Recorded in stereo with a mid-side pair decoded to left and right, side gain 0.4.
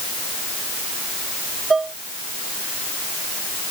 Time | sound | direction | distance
1.7 | dishes clattering | 30° right | ?